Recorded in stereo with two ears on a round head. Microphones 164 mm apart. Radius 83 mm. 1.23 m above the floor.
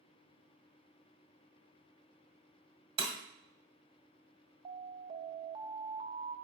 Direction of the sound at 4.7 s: 30° right (ahead or behind).